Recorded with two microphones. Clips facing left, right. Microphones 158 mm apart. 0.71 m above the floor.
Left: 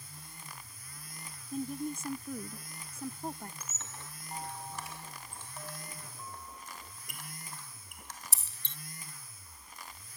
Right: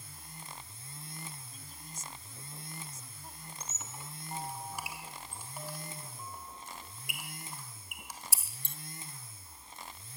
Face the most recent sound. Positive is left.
turn(degrees=-10)  # may be behind; listen again after turning